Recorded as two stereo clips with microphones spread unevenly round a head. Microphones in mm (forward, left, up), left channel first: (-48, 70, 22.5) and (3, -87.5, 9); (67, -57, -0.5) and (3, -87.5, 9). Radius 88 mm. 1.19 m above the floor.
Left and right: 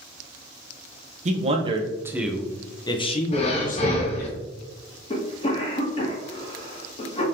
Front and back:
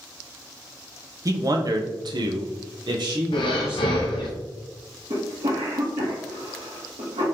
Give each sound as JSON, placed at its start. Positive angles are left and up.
{"t": 1.2, "sound": "a man speaking", "azimuth_deg": -115, "distance_m": 0.9}
{"t": 3.3, "sound": "breathing", "azimuth_deg": 50, "distance_m": 0.5}
{"t": 5.1, "sound": "a cough", "azimuth_deg": 165, "distance_m": 1.1}